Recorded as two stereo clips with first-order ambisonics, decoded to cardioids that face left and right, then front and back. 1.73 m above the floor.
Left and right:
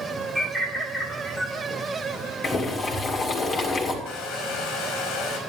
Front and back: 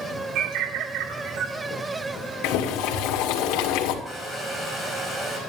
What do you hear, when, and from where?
0.3 s a bird: 175° right, 2 m
2.4 s boiling: 20° left, 2 m
4.0 s a hair dryer: 110° left, 5 m